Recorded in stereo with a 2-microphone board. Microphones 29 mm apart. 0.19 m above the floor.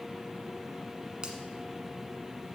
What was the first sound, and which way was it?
A finger snap, 30° right (ahead or behind).